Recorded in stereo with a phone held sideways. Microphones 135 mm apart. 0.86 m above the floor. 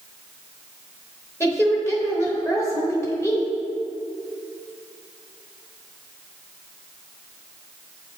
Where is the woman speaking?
20° left (ahead or behind), 1.0 m.